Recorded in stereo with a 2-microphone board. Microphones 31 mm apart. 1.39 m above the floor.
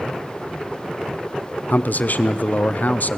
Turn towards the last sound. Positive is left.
turn(degrees=65)  # may be behind; listen again after turning